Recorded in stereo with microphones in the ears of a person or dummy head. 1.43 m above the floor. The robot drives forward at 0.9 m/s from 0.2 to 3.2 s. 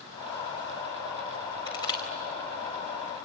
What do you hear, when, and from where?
1.7 s crushing: 30° left (ahead or behind), 4 m